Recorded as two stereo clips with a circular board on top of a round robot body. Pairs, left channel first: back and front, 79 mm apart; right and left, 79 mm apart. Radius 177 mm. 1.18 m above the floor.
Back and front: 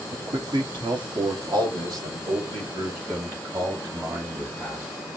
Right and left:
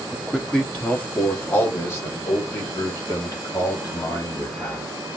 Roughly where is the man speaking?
Ahead.